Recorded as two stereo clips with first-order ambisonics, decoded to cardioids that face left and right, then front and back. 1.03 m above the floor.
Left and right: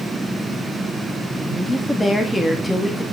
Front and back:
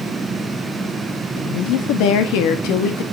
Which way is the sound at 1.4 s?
5° left.